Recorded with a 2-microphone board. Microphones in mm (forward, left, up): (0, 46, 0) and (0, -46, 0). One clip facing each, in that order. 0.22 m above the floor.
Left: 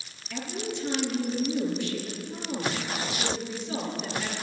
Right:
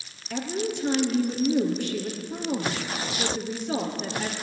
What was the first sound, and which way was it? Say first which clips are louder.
A woman speaking: right 5 dB; 55° right (ahead or behind).